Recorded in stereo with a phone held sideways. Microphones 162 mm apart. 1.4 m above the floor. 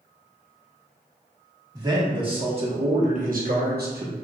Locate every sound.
1.7 s a man speaking: 25° right (ahead or behind), 1.4 m; by 4.2 s 75° right (ahead or behind), 0.9 m